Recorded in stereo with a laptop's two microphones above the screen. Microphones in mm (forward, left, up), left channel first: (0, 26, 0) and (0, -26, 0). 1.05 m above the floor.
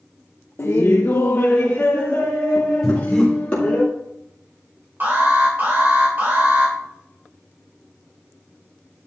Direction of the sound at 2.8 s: 5° left (ahead or behind).